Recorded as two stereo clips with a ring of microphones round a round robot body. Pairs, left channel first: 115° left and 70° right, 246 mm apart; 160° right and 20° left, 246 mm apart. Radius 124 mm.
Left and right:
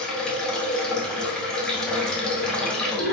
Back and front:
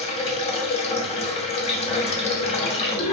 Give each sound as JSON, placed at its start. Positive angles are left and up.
{"t": 0.0, "sound": "running water", "azimuth_deg": -165, "distance_m": 0.8}